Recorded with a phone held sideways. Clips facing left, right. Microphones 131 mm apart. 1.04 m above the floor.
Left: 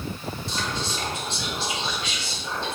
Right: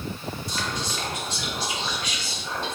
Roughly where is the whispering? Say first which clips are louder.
Left 1 dB; left.